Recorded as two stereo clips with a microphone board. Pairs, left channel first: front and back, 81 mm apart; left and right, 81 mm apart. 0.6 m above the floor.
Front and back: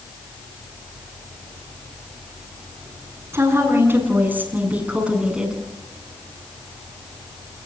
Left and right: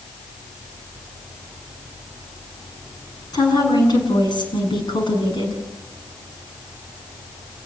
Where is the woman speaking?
125° left, 7.5 m; by 5.6 s 100° left, 7 m.